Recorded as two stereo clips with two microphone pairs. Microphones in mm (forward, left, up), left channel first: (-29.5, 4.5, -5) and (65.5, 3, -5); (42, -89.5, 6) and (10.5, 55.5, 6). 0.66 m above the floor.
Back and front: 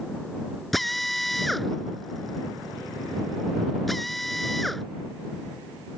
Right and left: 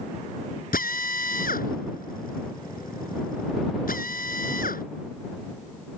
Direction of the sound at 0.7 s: 90° right.